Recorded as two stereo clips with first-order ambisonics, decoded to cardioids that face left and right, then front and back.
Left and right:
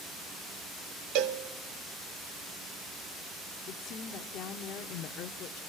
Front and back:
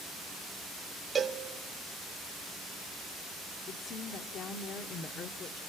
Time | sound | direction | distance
1.1 | a cowbell | 110° right | 1.2 m
3.7 | a woman speaking | 55° left | 1.1 m